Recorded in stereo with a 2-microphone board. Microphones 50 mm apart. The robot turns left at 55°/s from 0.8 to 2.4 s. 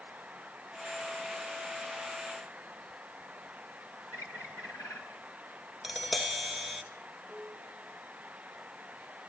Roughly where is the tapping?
Centre.